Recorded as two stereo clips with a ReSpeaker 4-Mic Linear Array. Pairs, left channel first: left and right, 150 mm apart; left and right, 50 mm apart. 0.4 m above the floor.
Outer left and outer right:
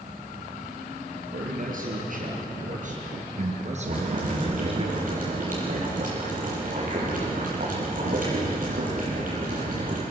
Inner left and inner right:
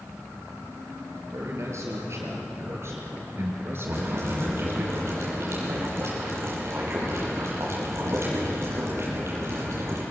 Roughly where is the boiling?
Right.